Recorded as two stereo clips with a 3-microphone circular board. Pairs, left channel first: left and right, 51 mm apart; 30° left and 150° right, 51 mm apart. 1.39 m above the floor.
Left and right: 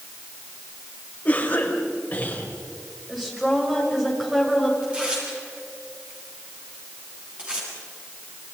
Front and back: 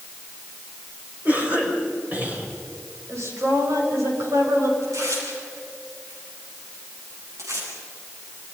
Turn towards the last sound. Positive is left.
turn(degrees=-155)